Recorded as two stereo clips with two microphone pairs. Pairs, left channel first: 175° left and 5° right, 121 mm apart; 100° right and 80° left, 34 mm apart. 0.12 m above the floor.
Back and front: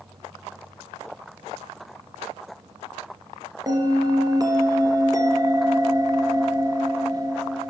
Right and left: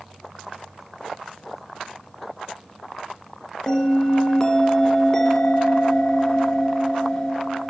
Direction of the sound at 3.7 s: 45° right.